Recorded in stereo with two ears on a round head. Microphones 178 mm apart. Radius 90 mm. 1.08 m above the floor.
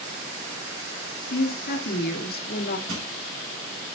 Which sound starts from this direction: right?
Crushing, at 2.9 s.